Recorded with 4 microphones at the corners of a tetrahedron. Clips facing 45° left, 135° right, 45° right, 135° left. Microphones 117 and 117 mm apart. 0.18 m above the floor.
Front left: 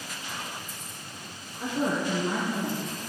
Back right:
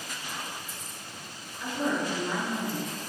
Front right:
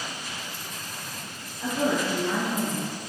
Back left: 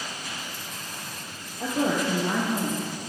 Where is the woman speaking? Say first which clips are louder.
Front left 2 dB, even; 95° left, 2.5 m.